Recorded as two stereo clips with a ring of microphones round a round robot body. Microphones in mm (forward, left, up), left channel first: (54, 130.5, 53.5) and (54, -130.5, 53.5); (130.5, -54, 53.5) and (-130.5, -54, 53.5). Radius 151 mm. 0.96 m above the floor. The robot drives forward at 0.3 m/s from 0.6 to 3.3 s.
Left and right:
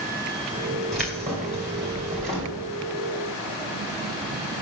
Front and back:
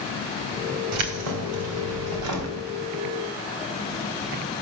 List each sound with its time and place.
0.9 s keys jangling: straight behind, 2.5 m